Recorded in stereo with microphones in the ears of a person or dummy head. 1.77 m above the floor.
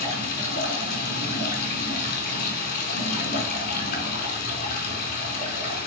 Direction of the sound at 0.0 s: 55° left (ahead or behind).